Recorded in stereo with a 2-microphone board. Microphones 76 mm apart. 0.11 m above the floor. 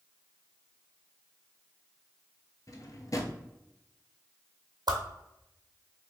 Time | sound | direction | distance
2.7 | a drawer | 50° left (ahead or behind) | 0.5 m
4.9 | a whoosh | 75° right (ahead or behind) | 0.8 m